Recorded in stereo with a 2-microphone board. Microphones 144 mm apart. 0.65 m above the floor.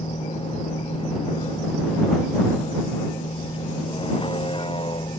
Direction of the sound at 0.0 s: 40° left (ahead or behind).